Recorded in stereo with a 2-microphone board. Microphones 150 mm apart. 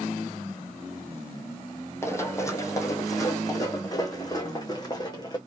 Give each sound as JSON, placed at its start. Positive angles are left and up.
{"t": 2.0, "sound": "running footsteps", "side_deg": 20, "distance_m": 2.5}